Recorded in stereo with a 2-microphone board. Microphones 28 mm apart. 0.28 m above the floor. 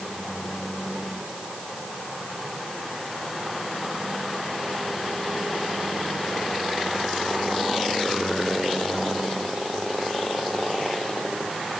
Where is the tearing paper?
I don't hear tearing paper.